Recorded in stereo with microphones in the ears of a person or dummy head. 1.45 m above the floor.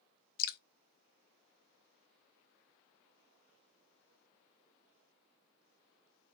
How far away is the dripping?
About 0.7 m.